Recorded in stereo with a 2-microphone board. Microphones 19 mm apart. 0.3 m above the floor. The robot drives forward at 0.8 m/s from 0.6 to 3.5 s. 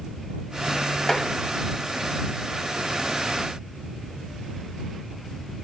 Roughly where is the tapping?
Left.